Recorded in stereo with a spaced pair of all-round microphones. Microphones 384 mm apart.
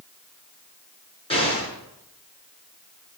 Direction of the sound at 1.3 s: 15° left (ahead or behind).